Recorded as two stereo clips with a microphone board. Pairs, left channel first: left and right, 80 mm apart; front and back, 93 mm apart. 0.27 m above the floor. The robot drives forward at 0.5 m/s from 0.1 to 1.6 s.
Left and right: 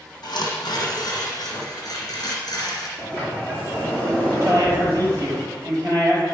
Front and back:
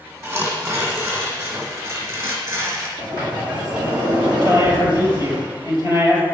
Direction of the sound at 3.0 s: 155° right.